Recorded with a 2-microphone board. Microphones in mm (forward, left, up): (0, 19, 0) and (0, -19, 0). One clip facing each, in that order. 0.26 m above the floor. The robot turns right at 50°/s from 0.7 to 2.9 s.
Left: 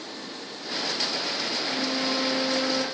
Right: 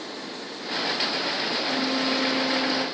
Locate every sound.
1.6 s a flute: 25° right, 5 m; by 2.9 s 35° left, 5 m